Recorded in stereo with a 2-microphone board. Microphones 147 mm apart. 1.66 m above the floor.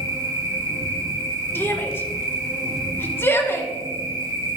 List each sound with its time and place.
0.0 s an insect: 25° right (ahead or behind), 1.6 m
1.6 s a shout: 15° left (ahead or behind), 1.3 m